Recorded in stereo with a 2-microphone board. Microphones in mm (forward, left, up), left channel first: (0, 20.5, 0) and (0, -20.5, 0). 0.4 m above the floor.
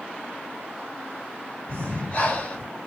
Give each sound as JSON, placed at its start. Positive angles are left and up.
{"t": 1.7, "sound": "breathing", "side_deg": 45, "distance_m": 1.6}